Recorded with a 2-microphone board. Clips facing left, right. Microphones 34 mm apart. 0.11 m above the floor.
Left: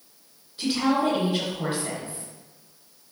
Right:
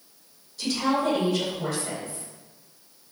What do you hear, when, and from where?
0.6 s a woman speaking: 30° left (ahead or behind), 1.6 m